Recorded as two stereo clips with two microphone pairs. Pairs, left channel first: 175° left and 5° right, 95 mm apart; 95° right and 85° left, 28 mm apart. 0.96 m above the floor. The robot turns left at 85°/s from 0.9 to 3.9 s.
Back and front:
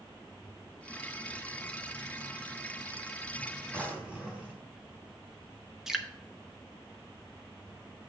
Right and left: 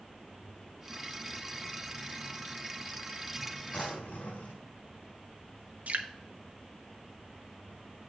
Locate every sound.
3.7 s a drawer: 65° right, 3 m; by 4.6 s 85° right, 3 m
5.9 s dripping: 80° left, 1.0 m